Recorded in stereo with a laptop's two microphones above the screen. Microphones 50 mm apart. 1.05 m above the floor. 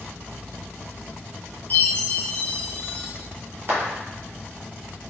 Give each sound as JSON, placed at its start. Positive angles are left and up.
{"t": 1.7, "sound": "a chime", "side_deg": 40, "distance_m": 0.5}
{"t": 3.7, "sound": "a clap", "side_deg": -45, "distance_m": 1.1}